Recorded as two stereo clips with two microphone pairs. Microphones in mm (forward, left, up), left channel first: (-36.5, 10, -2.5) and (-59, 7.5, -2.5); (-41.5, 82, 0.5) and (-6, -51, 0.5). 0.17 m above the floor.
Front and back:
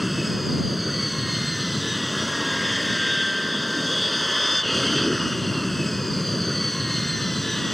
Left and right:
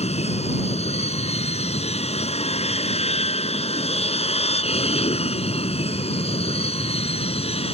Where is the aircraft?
100° left; by 7.7 s 85° left.